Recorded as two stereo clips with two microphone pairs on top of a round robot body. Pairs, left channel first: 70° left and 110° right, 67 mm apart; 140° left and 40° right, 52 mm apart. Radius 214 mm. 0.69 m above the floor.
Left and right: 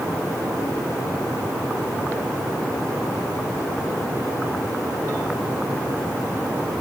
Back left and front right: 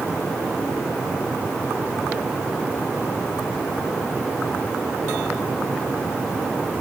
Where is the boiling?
No boiling in this recording.